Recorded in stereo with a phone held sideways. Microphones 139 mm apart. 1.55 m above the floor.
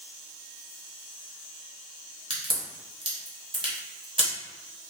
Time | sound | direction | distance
2.3 | a crack | 35° right (ahead or behind) | 1.0 m